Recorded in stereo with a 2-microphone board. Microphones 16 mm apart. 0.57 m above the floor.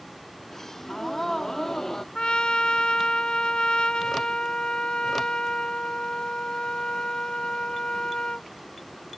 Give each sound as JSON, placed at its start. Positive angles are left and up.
{"t": 0.5, "sound": "a gasp", "side_deg": 25}
{"t": 2.1, "sound": "a trumpet", "side_deg": 80}